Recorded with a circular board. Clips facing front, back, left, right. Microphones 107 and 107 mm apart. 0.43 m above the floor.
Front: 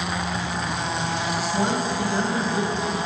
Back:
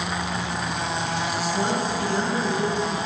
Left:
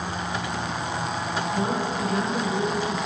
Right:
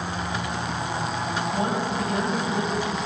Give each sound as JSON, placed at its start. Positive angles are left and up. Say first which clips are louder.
{"t": 1.5, "sound": "a woman speaking", "louder": "front 2 dB, even", "azimuth_deg": -75, "distance_m": 3.0}